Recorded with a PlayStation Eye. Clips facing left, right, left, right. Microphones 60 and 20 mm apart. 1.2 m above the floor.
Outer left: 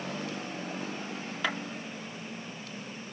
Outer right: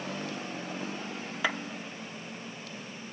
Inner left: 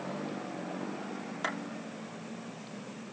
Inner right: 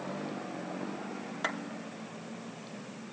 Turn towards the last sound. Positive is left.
turn(degrees=-10)  # may be behind; listen again after turning